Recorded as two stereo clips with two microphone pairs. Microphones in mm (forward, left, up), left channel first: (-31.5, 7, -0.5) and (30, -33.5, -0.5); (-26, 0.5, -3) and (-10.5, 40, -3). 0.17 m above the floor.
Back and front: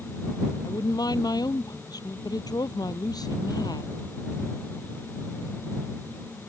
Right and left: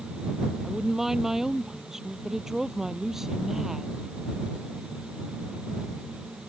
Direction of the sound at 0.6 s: 145° left.